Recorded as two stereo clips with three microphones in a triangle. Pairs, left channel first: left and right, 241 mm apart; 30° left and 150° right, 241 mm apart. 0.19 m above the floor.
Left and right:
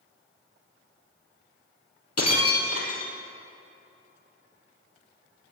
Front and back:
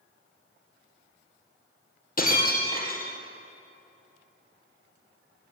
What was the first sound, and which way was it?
Breaking glass, 85° left.